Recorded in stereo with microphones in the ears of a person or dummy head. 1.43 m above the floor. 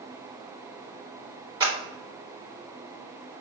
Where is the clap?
25° right (ahead or behind), 1.2 m.